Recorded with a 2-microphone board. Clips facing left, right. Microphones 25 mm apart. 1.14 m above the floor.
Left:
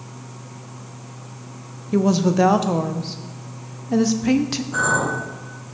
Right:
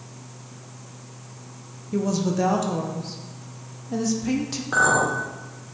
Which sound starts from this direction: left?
A woman speaking, at 1.9 s.